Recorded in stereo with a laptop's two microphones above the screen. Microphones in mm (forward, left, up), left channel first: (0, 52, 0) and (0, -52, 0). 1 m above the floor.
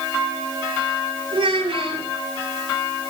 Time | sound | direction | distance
1.3 | a child speaking | 55° right (ahead or behind) | 9 m